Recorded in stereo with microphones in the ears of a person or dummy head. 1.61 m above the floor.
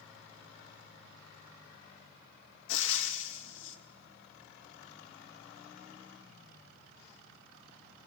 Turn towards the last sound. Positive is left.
turn(degrees=75)  # may be behind; listen again after turning